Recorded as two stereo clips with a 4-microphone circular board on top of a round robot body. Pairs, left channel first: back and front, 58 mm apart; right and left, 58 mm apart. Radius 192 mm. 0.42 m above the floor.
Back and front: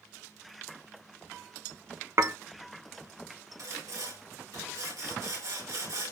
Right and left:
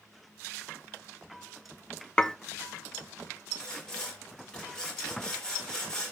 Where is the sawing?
10° right, 5.5 m.